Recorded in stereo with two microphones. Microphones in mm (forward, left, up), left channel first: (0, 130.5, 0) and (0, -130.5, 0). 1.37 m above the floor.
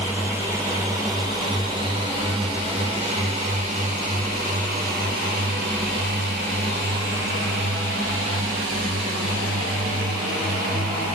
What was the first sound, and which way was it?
A drone, 10° right (ahead or behind).